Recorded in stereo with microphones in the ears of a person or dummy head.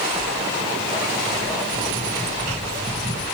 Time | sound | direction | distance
0.1 | footsteps | 15° right (ahead or behind) | 3 m